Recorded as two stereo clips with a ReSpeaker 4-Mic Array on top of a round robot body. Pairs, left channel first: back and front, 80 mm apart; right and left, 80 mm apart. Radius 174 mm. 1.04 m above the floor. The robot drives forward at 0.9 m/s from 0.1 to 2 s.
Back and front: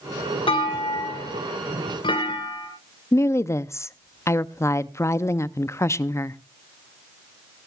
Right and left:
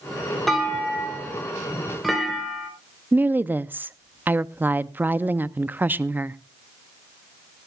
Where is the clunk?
Straight behind, 2.5 m.